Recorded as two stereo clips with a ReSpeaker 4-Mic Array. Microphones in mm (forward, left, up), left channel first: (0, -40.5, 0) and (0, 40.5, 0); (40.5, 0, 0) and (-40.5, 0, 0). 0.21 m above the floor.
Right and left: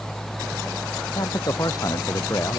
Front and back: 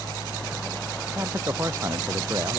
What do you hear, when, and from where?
1.1 s a man speaking: 125° right; by 2.6 s 135° right